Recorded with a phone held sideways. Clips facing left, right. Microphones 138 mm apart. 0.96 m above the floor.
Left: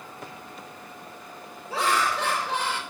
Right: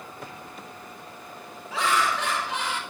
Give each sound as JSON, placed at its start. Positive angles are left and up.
{"t": 1.7, "sound": "laughter", "side_deg": 35, "distance_m": 3.0}